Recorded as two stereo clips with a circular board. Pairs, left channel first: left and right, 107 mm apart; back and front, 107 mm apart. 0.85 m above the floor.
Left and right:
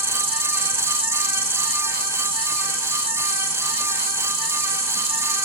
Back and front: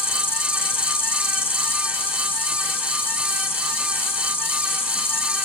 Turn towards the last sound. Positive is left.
turn(degrees=-110)